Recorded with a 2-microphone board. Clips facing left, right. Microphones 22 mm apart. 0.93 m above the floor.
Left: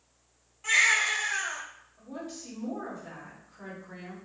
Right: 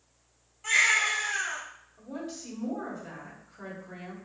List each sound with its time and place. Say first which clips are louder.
0.6 s a baby crying: even; 10° left (ahead or behind), 1.6 m
2.0 s a woman speaking: right 2 dB; 20° right (ahead or behind), 1.6 m